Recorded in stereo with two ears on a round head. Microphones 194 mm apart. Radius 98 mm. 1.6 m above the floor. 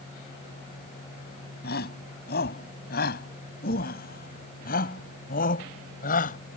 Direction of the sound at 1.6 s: 45° left (ahead or behind).